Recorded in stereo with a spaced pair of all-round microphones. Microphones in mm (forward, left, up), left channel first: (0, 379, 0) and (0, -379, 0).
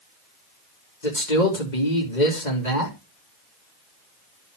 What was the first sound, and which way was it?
A man speaking, 70° left (ahead or behind).